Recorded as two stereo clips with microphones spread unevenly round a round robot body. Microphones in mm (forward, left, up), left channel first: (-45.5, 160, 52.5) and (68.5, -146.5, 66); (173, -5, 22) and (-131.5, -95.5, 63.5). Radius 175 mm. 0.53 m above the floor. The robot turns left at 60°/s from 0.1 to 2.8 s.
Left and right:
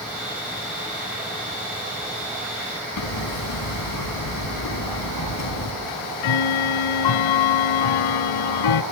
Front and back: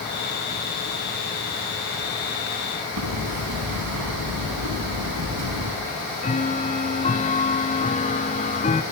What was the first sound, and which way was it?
Hammering, 150° left.